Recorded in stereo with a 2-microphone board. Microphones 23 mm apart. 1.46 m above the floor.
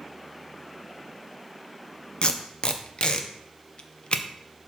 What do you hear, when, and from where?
2.2 s tape being pulled: 45° left (ahead or behind), 0.6 m